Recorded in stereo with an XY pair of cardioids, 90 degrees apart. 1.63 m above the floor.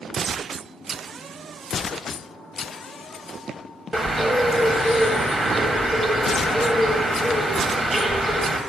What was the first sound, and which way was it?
A bird, 35° right.